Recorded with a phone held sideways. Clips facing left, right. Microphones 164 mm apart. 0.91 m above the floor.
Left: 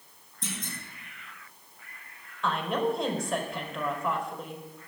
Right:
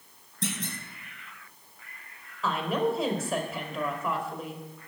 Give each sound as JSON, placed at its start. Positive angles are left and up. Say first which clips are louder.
{"t": 0.4, "sound": "a clunk", "louder": "right 5 dB", "side_deg": -80, "distance_m": 3.5}
{"t": 2.4, "sound": "a woman speaking", "louder": "right 1 dB", "side_deg": -5, "distance_m": 3.5}